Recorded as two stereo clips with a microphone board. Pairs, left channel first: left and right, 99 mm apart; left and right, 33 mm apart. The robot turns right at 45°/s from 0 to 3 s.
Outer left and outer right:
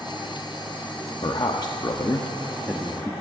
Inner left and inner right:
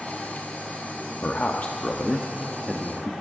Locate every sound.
1.2 s a man speaking: 80° left, 0.9 m; by 3.1 s 165° left, 0.9 m